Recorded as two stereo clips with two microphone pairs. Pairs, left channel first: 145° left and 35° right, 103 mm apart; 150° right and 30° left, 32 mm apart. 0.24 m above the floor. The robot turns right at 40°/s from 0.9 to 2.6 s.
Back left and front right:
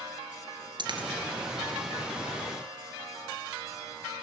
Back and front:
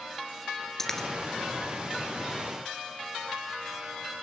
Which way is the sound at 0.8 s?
75° right.